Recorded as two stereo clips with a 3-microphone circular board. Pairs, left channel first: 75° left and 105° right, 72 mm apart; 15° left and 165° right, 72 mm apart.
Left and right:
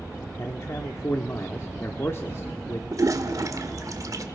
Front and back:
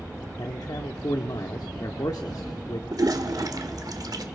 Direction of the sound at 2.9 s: 140° right.